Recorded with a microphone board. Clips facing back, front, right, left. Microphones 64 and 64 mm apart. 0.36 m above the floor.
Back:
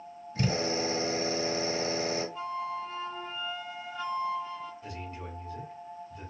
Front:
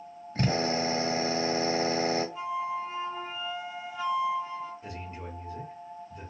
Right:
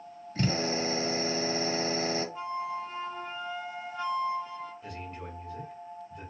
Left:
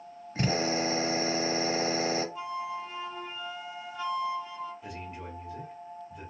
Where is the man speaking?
25° left, 1.6 m.